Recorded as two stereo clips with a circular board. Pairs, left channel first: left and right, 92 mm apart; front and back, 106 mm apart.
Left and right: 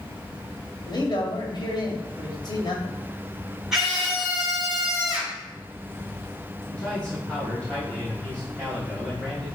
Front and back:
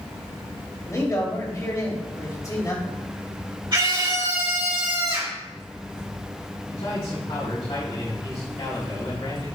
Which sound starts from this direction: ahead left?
A man speaking, at 0.8 s.